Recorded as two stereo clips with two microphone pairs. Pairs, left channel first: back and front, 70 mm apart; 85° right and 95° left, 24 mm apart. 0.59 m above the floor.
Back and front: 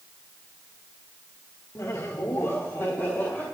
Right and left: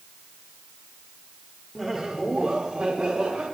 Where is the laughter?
175° left, 1.4 m; by 3.4 s 125° left, 3 m.